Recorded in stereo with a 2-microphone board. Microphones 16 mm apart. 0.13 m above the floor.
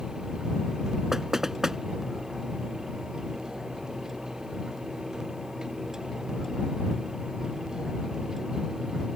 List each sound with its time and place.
1.1 s knocking: 30° right (ahead or behind)